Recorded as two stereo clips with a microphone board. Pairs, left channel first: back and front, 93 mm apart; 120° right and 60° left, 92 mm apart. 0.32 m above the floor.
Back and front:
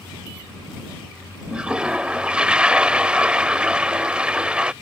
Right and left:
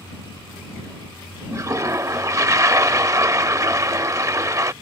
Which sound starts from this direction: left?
A toilet flushing, at 1.5 s.